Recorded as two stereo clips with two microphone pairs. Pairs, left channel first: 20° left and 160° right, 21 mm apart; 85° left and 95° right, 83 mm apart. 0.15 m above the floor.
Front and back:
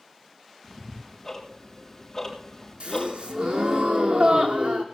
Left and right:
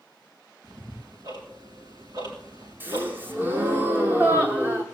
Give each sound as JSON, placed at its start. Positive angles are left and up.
{"t": 0.6, "sound": "ticking", "azimuth_deg": -60, "distance_m": 5.0}
{"t": 2.8, "sound": "a gasp", "azimuth_deg": -165, "distance_m": 1.3}